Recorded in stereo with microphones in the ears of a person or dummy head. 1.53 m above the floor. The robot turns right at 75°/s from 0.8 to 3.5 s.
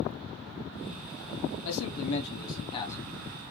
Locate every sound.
1.6 s a man speaking: 70° left, 0.8 m; by 3.2 s 175° right, 0.8 m